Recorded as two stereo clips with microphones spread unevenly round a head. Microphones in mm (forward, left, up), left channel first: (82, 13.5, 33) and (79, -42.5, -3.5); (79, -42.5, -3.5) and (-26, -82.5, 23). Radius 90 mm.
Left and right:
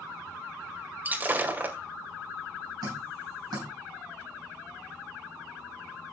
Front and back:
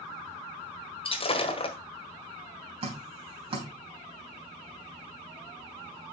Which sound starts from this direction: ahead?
Breaking glass, at 1.1 s.